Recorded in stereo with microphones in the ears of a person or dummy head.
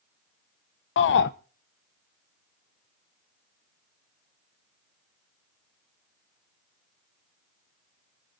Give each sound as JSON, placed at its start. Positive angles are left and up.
{"t": 1.0, "sound": "a shout", "side_deg": 55, "distance_m": 0.9}